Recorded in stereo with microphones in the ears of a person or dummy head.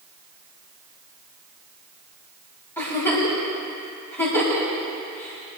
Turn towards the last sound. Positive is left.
turn(degrees=15)  # may be behind; listen again after turning